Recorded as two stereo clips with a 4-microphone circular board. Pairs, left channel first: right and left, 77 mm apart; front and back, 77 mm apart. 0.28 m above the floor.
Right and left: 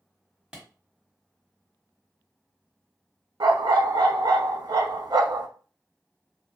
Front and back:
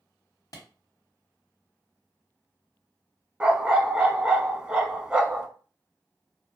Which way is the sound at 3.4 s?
100° left.